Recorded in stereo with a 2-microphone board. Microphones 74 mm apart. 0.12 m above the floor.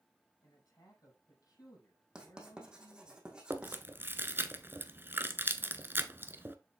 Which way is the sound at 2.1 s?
10° right (ahead or behind).